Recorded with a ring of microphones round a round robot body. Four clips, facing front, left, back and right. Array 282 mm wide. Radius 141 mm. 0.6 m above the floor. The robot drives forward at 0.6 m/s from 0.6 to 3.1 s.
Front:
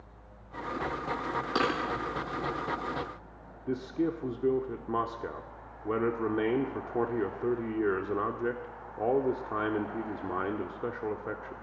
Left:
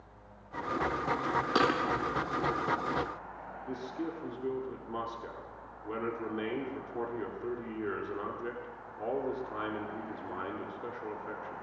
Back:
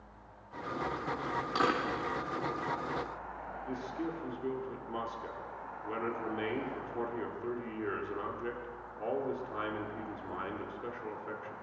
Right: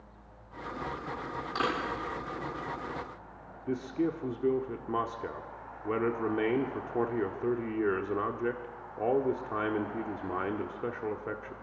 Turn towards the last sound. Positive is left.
turn(degrees=-40)